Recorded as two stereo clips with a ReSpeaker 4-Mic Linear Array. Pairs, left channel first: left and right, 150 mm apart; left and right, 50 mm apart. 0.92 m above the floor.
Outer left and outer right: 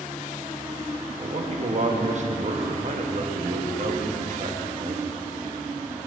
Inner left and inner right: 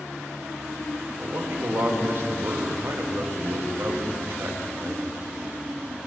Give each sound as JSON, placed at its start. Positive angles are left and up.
{"t": 1.2, "sound": "a man speaking", "side_deg": -55, "distance_m": 1.2}